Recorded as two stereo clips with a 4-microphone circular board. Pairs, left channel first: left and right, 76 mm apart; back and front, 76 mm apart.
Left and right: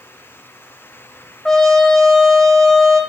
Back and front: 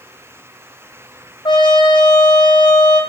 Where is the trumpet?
175° left, 2 m.